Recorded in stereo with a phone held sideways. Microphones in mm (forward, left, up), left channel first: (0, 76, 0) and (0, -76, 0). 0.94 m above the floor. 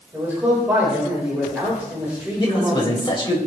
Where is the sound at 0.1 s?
10° right (ahead or behind), 4.5 m.